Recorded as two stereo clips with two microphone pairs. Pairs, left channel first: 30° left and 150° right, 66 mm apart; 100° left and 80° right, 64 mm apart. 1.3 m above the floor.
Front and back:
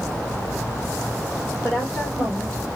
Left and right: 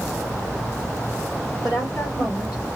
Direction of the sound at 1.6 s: 95° left.